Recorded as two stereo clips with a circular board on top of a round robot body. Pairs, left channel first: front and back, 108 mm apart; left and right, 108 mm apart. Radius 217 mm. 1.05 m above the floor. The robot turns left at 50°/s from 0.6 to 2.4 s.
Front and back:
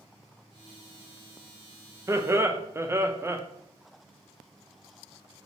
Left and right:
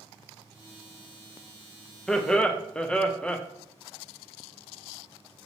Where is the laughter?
175° left, 0.8 m; by 3.4 s 155° left, 0.8 m.